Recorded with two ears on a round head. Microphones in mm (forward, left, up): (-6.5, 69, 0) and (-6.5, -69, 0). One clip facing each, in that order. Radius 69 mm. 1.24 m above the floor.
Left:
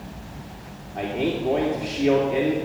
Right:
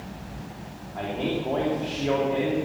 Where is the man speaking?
20° left (ahead or behind), 3 m.